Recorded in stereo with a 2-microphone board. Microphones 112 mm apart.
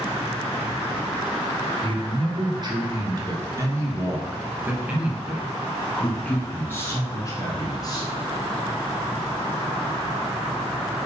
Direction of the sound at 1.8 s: 45° right (ahead or behind).